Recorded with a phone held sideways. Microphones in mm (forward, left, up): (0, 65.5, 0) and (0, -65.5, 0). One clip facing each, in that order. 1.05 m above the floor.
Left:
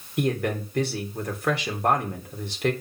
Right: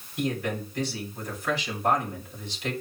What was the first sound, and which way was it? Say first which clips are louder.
A man speaking: left 4 dB; 65° left (ahead or behind).